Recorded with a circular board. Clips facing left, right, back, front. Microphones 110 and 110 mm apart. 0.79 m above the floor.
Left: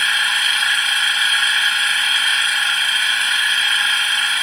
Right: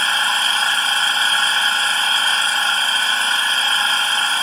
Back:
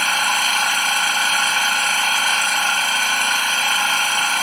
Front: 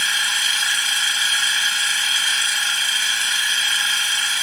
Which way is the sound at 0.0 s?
145° right.